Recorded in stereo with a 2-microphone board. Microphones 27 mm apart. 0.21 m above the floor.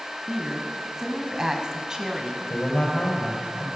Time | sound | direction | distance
0.3 | a woman speaking | 15° right (ahead or behind) | 1.7 m
2.5 | a man speaking | 70° left (ahead or behind) | 4.5 m